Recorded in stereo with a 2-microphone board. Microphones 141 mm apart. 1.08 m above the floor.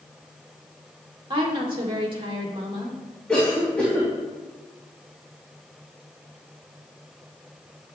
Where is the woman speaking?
35° right (ahead or behind), 2.5 m.